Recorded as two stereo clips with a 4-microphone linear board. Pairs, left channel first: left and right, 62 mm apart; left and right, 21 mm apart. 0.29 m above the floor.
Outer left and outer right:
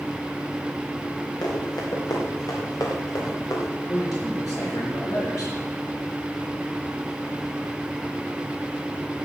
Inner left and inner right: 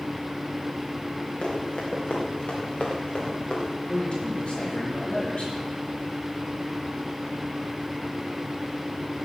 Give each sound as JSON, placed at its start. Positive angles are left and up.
{"t": 1.4, "sound": "running footsteps", "side_deg": 85, "distance_m": 5.0}
{"t": 3.9, "sound": "a man speaking", "side_deg": 70, "distance_m": 5.5}